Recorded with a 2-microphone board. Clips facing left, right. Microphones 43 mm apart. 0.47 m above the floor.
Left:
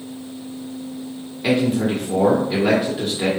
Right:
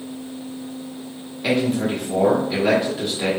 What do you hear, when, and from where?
1.4 s a man speaking: 5° left (ahead or behind), 1.3 m